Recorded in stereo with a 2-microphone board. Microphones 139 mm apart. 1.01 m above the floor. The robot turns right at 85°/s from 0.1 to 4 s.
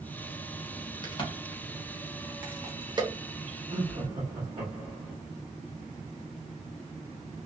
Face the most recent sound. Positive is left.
turn(degrees=-35)  # may be behind; listen again after turning